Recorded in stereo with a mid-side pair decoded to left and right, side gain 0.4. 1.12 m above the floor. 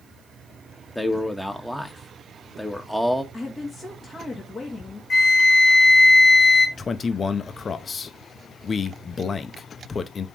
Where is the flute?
50° left, 1.8 m.